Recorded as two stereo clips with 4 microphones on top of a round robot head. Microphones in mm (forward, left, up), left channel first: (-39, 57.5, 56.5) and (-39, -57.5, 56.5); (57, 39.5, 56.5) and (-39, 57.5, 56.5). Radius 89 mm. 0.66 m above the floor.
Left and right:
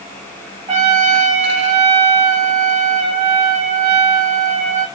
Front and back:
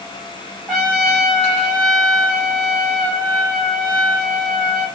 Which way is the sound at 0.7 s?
100° right.